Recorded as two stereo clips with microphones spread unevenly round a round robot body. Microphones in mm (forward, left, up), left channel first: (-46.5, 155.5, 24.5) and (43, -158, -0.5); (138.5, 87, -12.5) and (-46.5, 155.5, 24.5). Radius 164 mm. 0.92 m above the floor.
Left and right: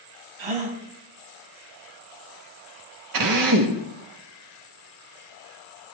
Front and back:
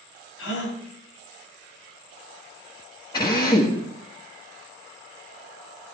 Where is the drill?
90° right, 1.5 m.